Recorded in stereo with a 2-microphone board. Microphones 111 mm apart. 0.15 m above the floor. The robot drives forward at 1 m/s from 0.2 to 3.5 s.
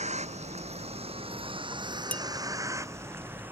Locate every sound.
0.0 s a vehicle: 80° right; by 3.5 s 15° right (ahead or behind)
2.1 s dishes clattering: 15° left (ahead or behind)